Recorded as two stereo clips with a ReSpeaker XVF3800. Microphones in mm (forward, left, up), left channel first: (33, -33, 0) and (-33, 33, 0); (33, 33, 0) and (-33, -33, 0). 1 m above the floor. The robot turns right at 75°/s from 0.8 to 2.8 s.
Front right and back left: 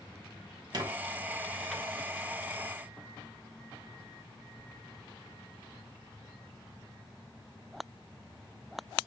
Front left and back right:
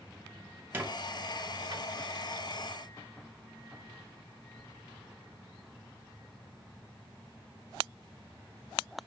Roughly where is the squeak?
Behind.